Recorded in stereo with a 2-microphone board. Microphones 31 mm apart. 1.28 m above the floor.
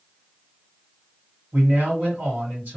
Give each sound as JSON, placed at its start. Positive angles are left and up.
{"t": 1.5, "sound": "a man speaking", "side_deg": -70, "distance_m": 1.7}